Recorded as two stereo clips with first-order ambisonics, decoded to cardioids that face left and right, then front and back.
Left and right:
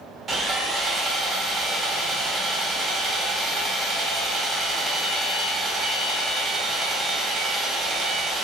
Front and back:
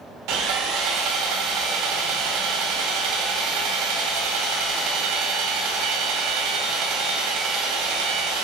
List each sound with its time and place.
0.3 s sawing: 160° right, 0.7 m